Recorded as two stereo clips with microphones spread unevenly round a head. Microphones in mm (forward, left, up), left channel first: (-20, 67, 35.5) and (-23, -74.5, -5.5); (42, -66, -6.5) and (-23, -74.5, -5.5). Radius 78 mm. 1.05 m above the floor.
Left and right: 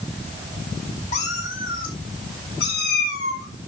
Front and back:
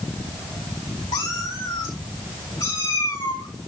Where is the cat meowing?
40° left, 2.5 m; by 3.5 s 65° left, 5 m.